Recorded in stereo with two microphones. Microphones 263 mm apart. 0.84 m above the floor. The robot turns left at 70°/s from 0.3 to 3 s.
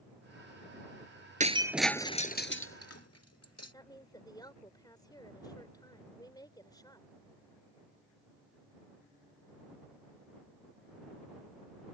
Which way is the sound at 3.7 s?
15° left (ahead or behind).